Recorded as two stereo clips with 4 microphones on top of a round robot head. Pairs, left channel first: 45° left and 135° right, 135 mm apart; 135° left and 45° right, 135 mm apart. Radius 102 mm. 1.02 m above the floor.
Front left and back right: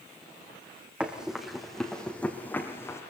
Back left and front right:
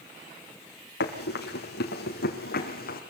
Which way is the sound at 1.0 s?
140° left.